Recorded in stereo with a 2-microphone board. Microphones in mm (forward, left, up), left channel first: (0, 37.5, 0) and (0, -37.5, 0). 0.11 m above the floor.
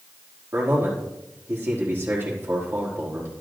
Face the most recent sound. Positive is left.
turn(degrees=-30)  # may be behind; listen again after turning